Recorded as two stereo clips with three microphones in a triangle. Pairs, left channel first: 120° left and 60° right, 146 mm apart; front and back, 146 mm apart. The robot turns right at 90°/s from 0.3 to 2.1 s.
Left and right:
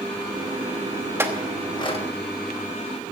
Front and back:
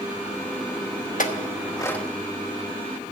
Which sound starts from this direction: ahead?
A clink, at 1.2 s.